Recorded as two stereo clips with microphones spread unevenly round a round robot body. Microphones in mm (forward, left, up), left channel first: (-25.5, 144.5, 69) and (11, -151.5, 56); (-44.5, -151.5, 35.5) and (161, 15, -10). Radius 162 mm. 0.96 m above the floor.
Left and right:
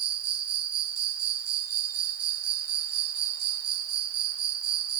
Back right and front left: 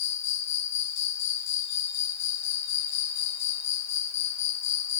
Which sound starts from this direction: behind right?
An insect, at 0.0 s.